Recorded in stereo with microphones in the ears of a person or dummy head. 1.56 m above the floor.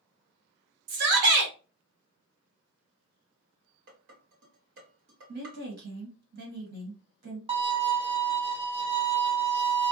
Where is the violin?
30° right (ahead or behind), 0.7 m.